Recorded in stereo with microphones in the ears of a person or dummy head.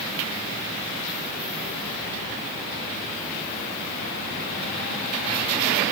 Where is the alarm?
No alarm in this recording.